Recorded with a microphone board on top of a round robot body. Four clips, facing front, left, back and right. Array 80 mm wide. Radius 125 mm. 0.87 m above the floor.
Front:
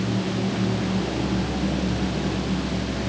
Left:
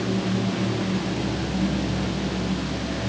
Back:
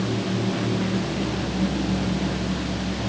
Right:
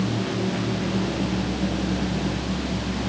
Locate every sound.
Only background noise.